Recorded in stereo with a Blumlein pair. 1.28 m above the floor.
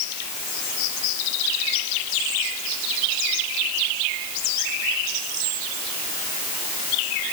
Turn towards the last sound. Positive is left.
No sound to turn to.